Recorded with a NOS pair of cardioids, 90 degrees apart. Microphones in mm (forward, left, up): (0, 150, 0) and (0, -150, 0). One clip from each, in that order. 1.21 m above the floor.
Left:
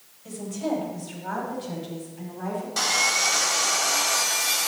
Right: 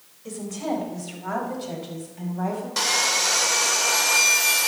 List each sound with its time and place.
0.2 s a woman speaking: 35° right, 5.5 m; by 2.7 s 60° right, 7.5 m
2.8 s sawing: 25° right, 2 m